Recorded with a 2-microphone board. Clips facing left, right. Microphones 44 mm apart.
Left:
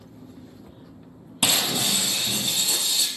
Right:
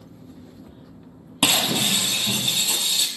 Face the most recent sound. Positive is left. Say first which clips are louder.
# right 3 dB
turn(degrees=-45)  # may be behind; listen again after turning